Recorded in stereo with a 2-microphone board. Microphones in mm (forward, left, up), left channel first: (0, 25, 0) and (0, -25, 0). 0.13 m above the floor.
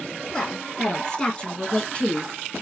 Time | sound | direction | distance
0.3 | a woman speaking | 10° left (ahead or behind) | 2.5 m